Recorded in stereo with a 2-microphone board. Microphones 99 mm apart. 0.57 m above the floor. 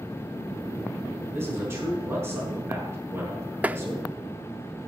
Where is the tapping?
15° right (ahead or behind), 0.7 m.